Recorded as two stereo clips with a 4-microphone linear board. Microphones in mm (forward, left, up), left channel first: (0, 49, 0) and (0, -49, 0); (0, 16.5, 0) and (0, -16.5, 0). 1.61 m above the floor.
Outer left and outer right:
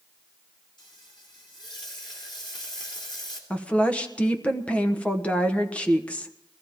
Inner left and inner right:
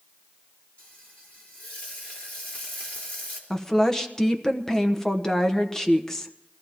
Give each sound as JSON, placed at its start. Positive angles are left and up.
{"t": 0.8, "sound": "frying", "side_deg": 55, "distance_m": 3.0}
{"t": 3.5, "sound": "a woman speaking", "side_deg": 15, "distance_m": 1.0}